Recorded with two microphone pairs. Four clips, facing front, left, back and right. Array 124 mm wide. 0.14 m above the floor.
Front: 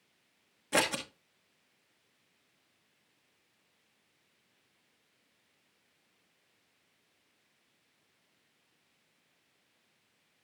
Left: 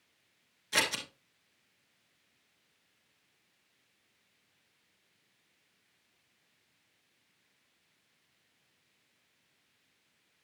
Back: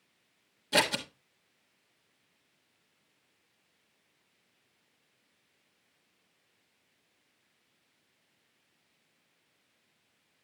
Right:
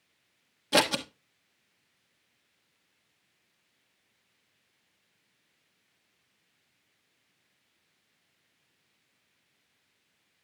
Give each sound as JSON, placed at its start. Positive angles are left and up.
{"t": 0.7, "sound": "scissors", "azimuth_deg": -80, "distance_m": 1.1}